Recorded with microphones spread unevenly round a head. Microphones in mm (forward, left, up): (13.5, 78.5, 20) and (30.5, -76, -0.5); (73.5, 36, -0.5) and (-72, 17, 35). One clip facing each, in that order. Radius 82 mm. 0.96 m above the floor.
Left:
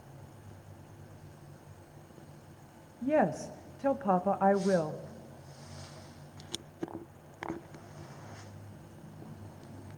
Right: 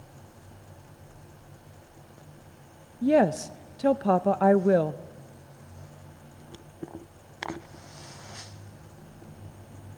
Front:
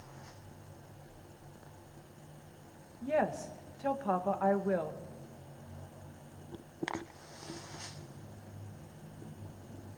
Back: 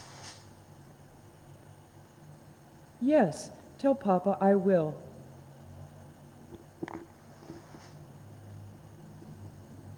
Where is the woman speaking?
120° right, 0.5 m.